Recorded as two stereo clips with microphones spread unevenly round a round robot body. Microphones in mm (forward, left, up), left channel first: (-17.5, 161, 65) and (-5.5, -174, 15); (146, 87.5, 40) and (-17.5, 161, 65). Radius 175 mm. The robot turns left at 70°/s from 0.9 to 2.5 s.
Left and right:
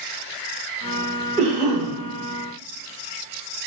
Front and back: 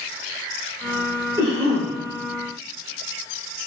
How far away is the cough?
About 1.1 m.